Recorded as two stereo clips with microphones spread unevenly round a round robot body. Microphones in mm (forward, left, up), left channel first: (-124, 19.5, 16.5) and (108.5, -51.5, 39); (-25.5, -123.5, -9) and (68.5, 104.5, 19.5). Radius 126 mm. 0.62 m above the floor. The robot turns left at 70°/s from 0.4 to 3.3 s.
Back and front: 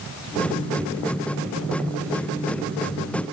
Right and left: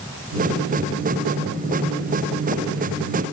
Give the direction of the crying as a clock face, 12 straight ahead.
No crying in this recording.